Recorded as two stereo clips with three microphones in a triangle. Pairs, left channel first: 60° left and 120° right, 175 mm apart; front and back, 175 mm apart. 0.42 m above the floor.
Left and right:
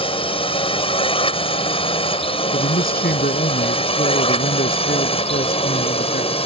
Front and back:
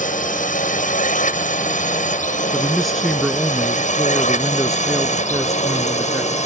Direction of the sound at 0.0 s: 10° left.